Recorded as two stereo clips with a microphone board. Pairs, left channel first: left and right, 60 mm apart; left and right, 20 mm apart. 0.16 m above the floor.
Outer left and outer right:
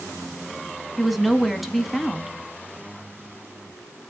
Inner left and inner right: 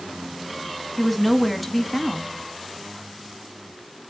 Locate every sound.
1.0 s a woman speaking: centre (ahead or behind), 1.3 m